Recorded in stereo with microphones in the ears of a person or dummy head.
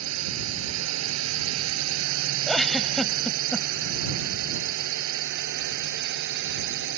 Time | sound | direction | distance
0.0 | a drone | 80° right | ?
2.5 | a giggle | 5° right (ahead or behind) | ?